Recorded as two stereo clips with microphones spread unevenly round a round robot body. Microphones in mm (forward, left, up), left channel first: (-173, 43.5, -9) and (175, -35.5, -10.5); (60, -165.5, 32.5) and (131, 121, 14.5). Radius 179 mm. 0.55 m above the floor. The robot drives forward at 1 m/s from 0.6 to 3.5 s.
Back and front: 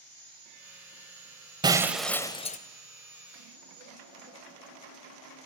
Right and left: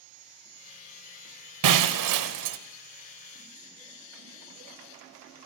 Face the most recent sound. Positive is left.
turn(degrees=125)